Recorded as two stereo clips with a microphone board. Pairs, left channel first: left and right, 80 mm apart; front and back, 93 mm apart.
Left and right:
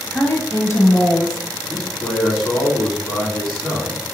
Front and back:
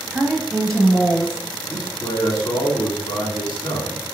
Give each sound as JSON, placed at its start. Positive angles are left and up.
{"t": 0.1, "sound": "a woman speaking", "azimuth_deg": 115, "distance_m": 1.2}
{"t": 1.7, "sound": "a man speaking", "azimuth_deg": -5, "distance_m": 2.0}